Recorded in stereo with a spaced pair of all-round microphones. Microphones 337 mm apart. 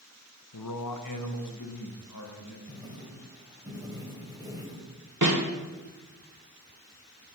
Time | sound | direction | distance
0.5 | a man speaking | 80° left | 0.9 m
2.7 | writing | 10° right (ahead or behind) | 2.5 m
5.2 | a snare drum | 60° right (ahead or behind) | 1.6 m